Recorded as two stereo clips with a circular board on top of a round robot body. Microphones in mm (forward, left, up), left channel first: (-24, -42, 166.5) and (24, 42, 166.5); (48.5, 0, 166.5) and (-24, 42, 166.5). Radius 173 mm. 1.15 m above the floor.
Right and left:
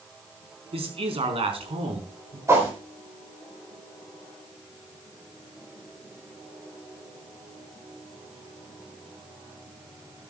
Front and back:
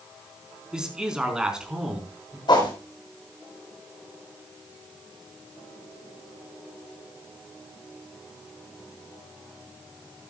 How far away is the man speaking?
About 4.5 m.